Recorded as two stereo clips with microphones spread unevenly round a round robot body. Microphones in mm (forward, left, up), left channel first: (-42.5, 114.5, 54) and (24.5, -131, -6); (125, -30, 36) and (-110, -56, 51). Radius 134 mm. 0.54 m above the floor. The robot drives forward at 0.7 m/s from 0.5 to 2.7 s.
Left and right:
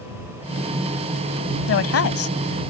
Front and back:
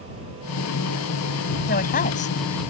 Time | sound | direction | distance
1.7 | a woman speaking | 60° left | ?